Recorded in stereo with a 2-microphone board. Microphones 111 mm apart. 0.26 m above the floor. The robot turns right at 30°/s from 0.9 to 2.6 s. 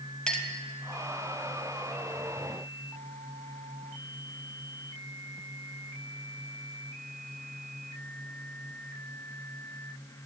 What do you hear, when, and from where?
0.3 s a clink: 10° left (ahead or behind), 1.2 m